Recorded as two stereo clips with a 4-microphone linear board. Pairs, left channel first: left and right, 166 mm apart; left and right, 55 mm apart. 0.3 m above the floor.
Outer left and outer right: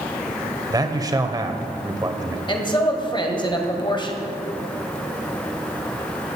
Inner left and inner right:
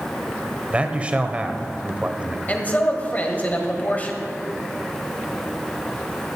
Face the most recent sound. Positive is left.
turn(degrees=30)  # may be behind; listen again after turning